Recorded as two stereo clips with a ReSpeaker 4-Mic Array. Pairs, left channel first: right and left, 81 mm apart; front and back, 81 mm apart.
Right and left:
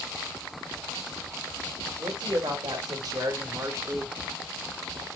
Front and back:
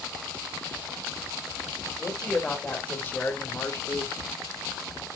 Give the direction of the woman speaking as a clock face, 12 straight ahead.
9 o'clock.